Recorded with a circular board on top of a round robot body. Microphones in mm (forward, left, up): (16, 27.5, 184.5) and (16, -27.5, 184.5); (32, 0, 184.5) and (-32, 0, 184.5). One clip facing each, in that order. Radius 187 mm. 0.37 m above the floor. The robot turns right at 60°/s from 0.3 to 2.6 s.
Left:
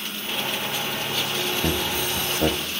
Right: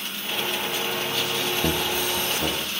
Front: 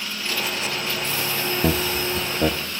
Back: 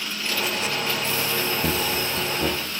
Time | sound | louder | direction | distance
1.6 | laughter | even, front 2 dB | 10° right | 1.5 m